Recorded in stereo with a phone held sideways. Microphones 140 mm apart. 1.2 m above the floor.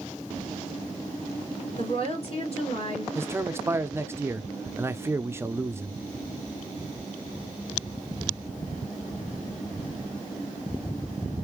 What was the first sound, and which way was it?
A woman speaking, 45° left (ahead or behind).